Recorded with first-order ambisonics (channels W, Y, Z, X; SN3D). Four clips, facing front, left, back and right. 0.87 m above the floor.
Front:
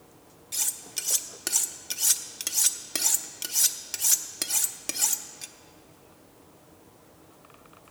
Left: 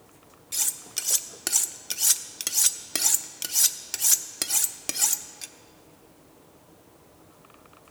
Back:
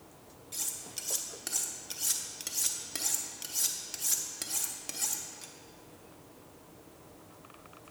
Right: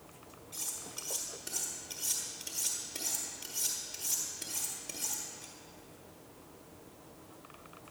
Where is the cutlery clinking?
65° left, 0.5 m.